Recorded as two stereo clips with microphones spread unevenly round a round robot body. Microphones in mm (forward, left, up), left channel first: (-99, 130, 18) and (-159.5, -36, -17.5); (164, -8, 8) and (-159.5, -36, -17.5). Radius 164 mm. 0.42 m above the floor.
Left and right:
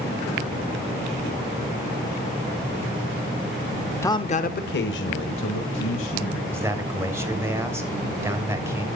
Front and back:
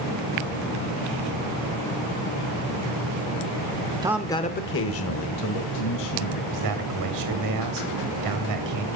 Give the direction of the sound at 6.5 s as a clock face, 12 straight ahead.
6 o'clock.